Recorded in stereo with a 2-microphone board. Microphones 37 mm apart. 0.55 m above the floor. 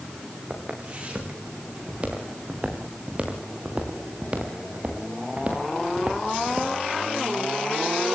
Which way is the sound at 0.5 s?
30° right (ahead or behind).